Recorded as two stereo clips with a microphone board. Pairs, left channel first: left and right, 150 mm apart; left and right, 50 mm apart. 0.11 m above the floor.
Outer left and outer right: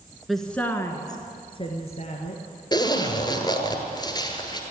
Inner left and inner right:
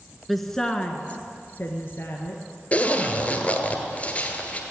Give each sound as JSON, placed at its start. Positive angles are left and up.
{"t": 0.3, "sound": "a woman speaking", "side_deg": 0, "distance_m": 1.3}
{"t": 2.7, "sound": "a zipper", "side_deg": 30, "distance_m": 1.7}